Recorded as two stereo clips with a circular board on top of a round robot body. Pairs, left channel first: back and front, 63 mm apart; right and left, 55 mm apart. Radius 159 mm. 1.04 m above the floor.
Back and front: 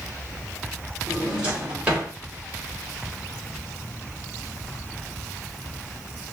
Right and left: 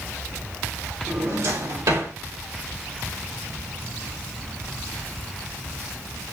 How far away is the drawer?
About 2 m.